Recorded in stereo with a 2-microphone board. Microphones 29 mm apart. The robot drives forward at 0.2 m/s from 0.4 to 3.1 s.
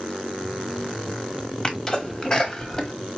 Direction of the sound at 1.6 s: 20° left (ahead or behind).